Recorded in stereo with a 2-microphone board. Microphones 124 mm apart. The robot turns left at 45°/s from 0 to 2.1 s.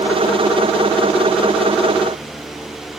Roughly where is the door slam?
I don't hear a door slam.